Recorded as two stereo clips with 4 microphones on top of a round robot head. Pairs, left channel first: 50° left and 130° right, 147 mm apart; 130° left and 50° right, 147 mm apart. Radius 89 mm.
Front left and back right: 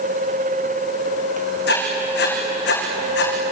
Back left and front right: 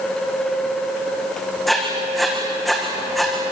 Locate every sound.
1.7 s writing: 45° left, 5.5 m